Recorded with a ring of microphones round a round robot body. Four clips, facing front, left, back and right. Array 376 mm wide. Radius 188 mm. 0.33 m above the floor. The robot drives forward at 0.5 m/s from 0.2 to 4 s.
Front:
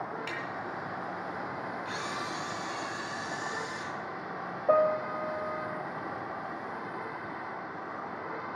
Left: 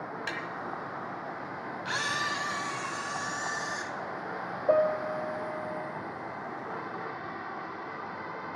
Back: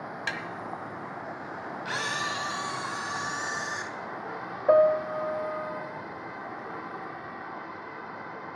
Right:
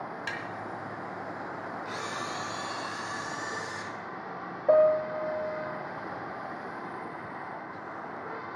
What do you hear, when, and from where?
0.3 s tapping: straight behind, 1.7 m
1.9 s a camera shutter: 130° left, 0.7 m; by 3.9 s 160° left, 1.5 m
4.7 s a piano: 165° right, 1.1 m